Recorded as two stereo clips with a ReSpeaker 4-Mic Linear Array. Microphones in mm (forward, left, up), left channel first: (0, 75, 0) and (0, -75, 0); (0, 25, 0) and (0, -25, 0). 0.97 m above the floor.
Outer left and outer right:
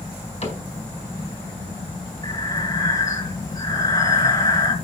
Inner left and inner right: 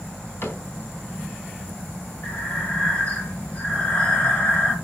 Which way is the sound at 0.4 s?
50° left (ahead or behind).